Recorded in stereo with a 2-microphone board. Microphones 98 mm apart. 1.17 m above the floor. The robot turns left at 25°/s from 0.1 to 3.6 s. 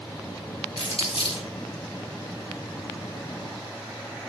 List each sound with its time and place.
0.8 s crumpling: 80° left, 3 m; by 1.5 s 70° left (ahead or behind), 3 m